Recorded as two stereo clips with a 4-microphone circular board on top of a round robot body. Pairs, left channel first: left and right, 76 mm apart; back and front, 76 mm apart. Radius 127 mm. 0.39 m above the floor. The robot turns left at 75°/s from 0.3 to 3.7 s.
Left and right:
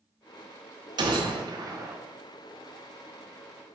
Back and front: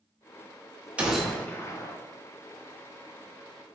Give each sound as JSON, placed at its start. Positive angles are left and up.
{"t": 1.0, "sound": "a gunshot", "azimuth_deg": -75, "distance_m": 0.6}